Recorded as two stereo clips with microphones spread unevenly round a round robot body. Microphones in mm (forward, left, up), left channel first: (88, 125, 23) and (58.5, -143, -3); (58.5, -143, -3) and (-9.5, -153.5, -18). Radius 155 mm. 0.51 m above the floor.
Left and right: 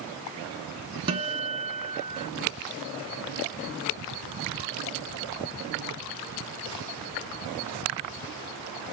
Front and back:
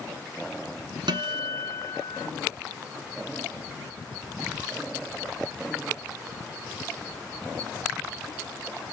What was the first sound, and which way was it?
A guitar, 170° right.